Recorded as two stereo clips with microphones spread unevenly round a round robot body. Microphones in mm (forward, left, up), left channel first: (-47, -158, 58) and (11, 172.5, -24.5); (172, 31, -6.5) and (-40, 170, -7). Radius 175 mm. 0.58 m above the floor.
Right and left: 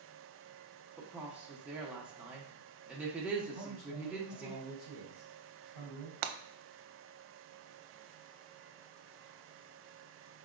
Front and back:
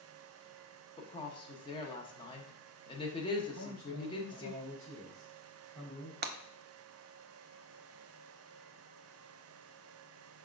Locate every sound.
1.0 s a woman speaking: 20° left, 0.8 m
3.5 s a man speaking: 110° right, 3 m
6.2 s breaking glass: 105° left, 0.5 m